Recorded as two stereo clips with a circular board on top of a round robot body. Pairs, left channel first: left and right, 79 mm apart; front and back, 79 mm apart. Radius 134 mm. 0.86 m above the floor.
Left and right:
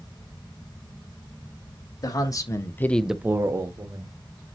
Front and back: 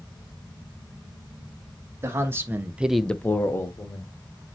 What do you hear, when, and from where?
2.0 s a man speaking: 125° left, 1.7 m; by 4.1 s 50° right, 1.9 m